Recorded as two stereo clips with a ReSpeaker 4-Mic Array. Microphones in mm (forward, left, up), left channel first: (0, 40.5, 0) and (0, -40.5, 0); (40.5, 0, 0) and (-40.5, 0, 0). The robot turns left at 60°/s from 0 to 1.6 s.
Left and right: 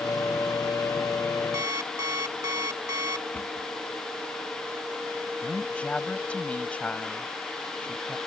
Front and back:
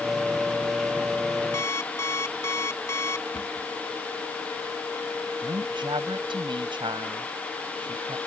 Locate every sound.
1.5 s an alarm clock: 45° right; by 3.2 s 50° right
3.3 s a cupboard door: 20° left
5.4 s a woman speaking: 165° left